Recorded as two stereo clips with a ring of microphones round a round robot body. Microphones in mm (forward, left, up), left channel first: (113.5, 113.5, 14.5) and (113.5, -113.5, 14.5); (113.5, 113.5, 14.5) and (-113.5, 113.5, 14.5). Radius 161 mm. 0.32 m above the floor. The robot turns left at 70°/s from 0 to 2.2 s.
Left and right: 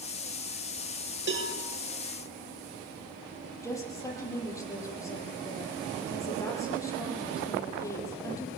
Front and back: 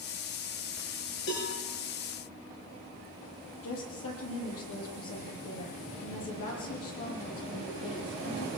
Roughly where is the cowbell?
Ahead right.